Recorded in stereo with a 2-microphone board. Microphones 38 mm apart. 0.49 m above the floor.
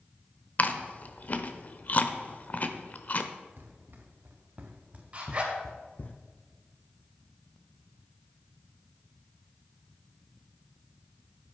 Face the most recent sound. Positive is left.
turn(degrees=-35)  # may be behind; listen again after turning